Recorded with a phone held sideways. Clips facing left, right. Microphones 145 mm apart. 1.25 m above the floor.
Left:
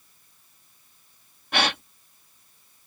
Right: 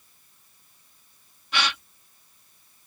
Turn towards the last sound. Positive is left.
turn(degrees=55)  # may be behind; listen again after turning